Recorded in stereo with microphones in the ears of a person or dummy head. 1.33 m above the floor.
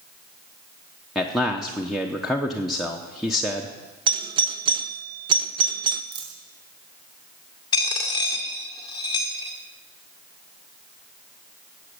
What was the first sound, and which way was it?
A man speaking, centre (ahead or behind).